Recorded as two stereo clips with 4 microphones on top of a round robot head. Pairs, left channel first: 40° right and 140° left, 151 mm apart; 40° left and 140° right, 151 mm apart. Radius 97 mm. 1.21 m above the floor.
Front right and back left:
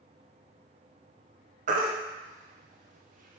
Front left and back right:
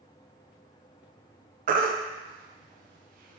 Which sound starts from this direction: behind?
A baby crying, at 1.7 s.